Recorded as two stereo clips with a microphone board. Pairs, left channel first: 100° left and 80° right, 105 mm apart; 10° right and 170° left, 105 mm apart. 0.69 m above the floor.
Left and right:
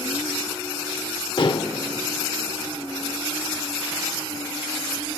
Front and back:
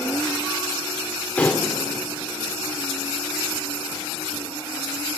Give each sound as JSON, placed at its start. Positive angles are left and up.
{"t": 1.4, "sound": "dishes clattering", "azimuth_deg": 65, "distance_m": 1.1}